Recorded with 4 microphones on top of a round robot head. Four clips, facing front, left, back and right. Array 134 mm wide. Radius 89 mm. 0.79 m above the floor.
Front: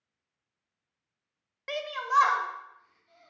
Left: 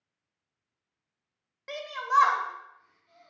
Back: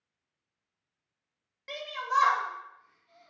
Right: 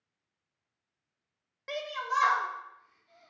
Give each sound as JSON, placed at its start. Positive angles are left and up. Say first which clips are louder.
{"t": 1.7, "sound": "a shout", "louder": "left 4 dB, front 3 dB", "azimuth_deg": 5, "distance_m": 0.6}